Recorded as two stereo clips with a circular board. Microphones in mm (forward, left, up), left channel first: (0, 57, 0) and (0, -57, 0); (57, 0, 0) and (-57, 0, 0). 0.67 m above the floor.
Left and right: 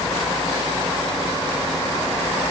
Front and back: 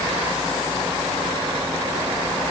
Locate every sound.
Only background noise.